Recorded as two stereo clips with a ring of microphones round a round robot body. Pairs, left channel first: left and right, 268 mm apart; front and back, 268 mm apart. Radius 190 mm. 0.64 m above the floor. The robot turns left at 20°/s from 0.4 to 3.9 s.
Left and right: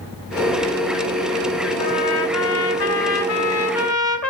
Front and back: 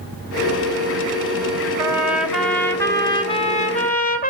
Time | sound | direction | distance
1.8 | a trumpet | 100° left | 3 m